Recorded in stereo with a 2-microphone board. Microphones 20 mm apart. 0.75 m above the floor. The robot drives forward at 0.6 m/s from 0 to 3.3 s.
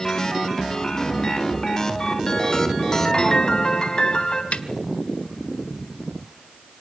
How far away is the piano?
About 3.5 m.